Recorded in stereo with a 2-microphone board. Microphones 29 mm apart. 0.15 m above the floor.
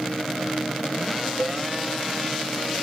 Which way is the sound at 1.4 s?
40° right (ahead or behind).